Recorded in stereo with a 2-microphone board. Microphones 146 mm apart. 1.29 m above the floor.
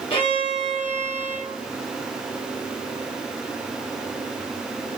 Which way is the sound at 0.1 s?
35° left (ahead or behind).